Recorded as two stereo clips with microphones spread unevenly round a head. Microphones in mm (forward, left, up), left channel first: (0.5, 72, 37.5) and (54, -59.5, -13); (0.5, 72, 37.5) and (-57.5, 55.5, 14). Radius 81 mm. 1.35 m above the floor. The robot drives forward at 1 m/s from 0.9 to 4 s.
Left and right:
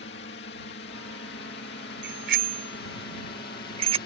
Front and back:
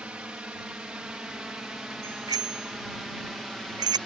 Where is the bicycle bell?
105° right; by 4.0 s 130° right.